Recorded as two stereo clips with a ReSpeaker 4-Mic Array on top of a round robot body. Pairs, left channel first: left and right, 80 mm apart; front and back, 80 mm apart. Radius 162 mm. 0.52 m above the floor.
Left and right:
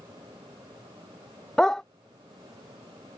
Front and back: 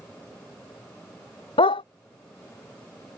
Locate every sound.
1.6 s a dog barking: 10° left